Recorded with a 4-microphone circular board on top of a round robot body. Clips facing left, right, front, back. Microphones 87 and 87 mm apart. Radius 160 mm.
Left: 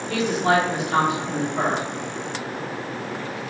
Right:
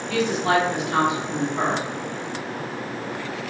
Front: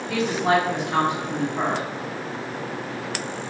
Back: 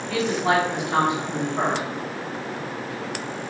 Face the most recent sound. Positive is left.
turn(degrees=135)